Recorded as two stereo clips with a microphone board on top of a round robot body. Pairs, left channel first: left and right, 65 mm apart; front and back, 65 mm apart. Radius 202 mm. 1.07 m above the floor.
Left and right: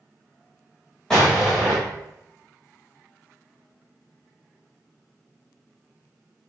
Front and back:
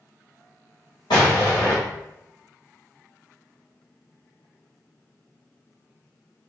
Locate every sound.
1.1 s an explosion: 10° left, 1.3 m